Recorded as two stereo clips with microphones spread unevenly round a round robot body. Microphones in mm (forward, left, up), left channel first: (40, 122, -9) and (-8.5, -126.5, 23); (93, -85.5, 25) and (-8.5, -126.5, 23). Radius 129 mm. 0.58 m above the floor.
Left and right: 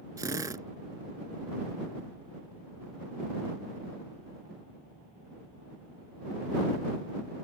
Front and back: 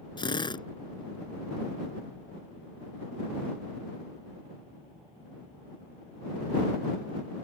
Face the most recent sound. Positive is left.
turn(degrees=-25)